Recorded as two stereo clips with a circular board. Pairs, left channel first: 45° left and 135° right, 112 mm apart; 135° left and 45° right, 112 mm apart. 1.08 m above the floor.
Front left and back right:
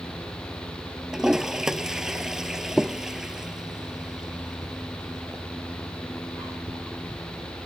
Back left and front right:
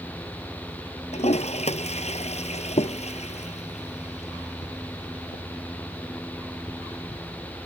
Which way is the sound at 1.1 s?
140° left.